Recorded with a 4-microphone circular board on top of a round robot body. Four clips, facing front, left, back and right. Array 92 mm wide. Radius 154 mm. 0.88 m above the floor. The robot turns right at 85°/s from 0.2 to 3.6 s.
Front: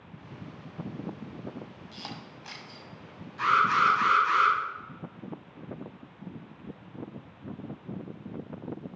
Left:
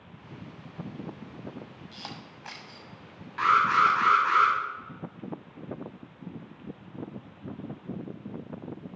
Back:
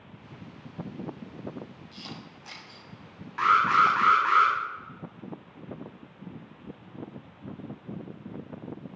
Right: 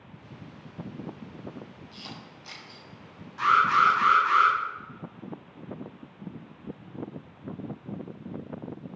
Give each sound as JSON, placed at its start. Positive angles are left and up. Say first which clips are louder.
{"t": 1.9, "sound": "a camera shutter", "louder": "left 1 dB, front 1 dB", "azimuth_deg": 35, "distance_m": 1.1}
{"t": 3.4, "sound": "an alarm", "louder": "right 1 dB, back 2 dB", "azimuth_deg": 155, "distance_m": 3.0}